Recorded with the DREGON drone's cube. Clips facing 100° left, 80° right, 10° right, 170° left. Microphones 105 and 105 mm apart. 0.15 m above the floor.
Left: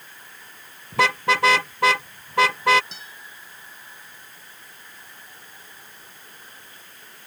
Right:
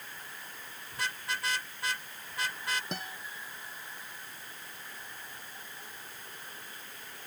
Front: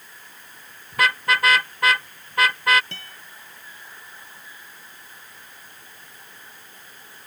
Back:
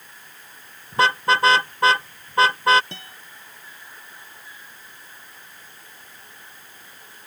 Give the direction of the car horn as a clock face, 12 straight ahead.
8 o'clock.